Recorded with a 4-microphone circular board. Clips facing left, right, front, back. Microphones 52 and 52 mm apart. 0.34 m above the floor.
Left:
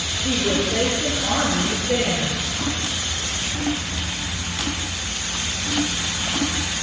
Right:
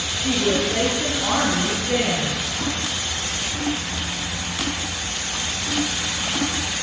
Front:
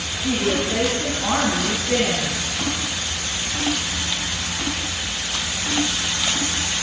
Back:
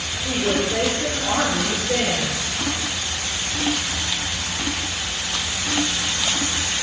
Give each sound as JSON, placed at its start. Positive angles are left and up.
{"t": 0.2, "sound": "a woman speaking", "azimuth_deg": -35, "distance_m": 3.0}